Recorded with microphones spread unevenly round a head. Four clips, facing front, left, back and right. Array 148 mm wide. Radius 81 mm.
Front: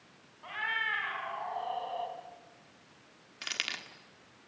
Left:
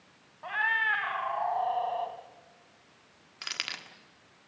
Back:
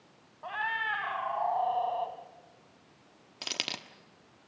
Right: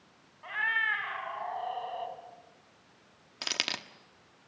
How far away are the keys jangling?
About 1.3 m.